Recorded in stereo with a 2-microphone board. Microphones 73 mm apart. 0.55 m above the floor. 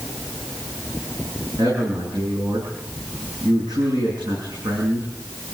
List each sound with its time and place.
1.6 s a man speaking: 80° right, 7 m